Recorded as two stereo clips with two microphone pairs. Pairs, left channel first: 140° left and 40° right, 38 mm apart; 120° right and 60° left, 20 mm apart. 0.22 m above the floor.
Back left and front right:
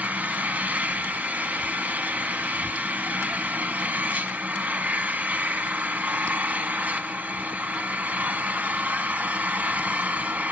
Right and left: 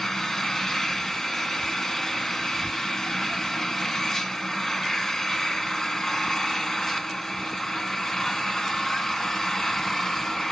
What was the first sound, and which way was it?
An engine running, 60° right.